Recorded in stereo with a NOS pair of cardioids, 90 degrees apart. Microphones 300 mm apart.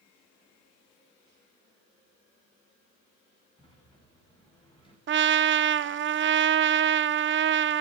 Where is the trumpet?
40° right, 0.7 m.